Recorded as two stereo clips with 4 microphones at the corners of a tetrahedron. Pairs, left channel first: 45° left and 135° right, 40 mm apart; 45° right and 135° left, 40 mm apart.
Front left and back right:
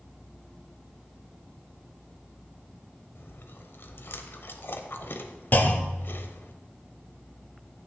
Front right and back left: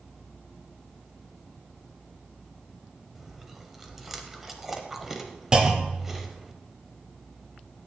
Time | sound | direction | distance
3.1 | chewing | 55° left | 0.9 m
5.5 | a clunk | 70° left | 0.9 m